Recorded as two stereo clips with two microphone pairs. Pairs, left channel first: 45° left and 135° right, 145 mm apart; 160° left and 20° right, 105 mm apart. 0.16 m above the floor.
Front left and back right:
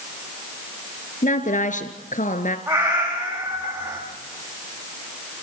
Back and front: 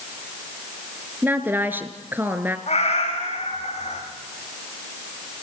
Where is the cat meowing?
155° left, 8 m.